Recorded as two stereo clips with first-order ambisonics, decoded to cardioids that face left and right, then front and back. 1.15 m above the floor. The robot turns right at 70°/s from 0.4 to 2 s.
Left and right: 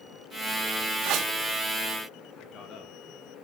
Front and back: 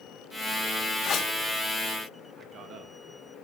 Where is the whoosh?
60° right, 1.7 m; by 1.3 s 40° right, 1.7 m.